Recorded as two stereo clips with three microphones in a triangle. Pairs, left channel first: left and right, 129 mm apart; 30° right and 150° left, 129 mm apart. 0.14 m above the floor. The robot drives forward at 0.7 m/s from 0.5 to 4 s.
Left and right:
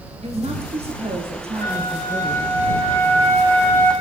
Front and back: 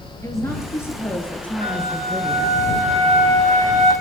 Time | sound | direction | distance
0.2 | a woman speaking | 90° right | 3 m
1.6 | a flute | 140° left | 2 m